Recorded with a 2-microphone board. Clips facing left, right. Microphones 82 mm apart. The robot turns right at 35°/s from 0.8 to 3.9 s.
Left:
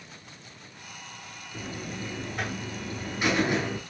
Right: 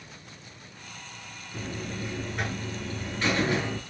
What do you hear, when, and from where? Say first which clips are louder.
1.5 s a buzzer: right 1 dB; 10° right (ahead or behind), 0.8 m; by 3.8 s 20° left (ahead or behind), 0.8 m